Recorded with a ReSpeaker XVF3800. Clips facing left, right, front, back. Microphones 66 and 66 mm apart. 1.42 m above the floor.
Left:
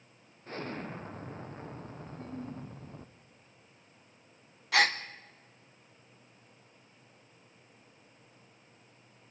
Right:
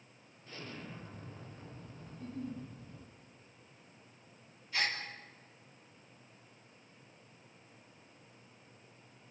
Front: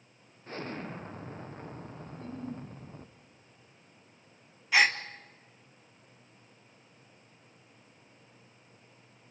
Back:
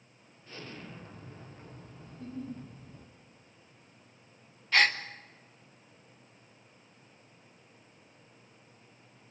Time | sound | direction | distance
0.5 | an explosion | 45° left | 0.9 m
2.1 | a giggle | 45° left | 5.5 m
4.7 | a gasp | 80° left | 1.2 m